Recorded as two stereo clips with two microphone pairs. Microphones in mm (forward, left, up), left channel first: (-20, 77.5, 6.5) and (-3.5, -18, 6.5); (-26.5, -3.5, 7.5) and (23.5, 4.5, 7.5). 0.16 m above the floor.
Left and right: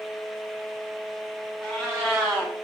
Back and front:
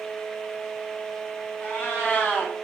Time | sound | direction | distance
1.6 | a cat meowing | straight behind | 0.9 m